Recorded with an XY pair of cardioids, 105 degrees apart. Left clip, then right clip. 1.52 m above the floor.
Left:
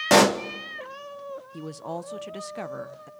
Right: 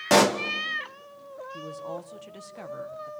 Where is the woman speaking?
50° left, 0.9 m.